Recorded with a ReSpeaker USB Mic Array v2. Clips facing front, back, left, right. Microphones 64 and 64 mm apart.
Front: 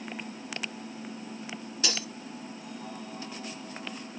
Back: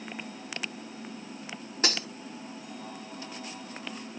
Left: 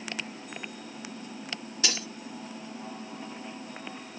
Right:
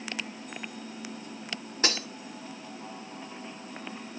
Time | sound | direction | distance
1.8 | breaking glass | 135° right | 2 m